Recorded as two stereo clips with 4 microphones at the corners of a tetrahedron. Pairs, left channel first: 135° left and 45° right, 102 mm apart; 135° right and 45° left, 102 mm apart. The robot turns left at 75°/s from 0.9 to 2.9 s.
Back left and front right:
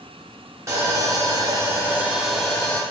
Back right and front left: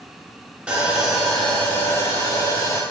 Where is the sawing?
20° right, 0.8 m; by 2.8 s 165° right, 0.8 m.